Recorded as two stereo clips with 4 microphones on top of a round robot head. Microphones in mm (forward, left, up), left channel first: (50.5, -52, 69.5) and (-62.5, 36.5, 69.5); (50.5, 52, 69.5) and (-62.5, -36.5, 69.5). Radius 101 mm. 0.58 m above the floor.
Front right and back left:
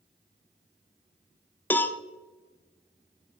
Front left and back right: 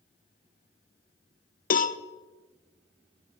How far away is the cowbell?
About 0.7 m.